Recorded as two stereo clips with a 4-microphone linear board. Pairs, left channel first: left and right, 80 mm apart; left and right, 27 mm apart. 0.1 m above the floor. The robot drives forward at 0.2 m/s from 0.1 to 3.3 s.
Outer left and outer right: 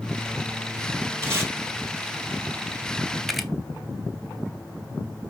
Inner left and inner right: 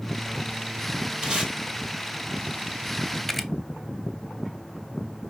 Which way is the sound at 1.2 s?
30° right (ahead or behind).